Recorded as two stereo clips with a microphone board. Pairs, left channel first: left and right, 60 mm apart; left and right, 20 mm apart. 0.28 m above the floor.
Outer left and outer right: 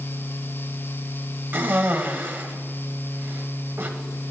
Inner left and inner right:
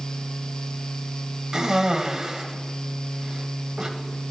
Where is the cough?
35° right (ahead or behind), 1.1 m.